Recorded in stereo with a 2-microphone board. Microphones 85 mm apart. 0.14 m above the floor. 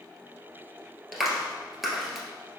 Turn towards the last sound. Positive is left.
turn(degrees=-5)  # may be behind; listen again after turning